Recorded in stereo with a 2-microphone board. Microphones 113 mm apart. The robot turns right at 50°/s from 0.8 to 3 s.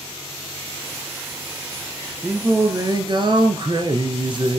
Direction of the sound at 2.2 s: 170° right.